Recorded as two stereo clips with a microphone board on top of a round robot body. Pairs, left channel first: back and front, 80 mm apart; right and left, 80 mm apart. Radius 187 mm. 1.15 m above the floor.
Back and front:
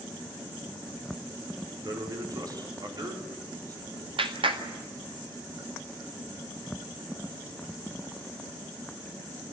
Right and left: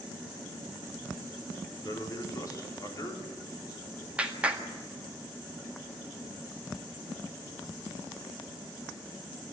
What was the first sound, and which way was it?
A man speaking, 40° right.